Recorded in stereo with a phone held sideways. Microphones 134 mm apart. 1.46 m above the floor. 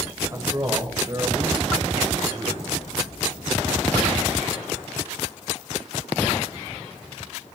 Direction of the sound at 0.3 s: 25° right (ahead or behind).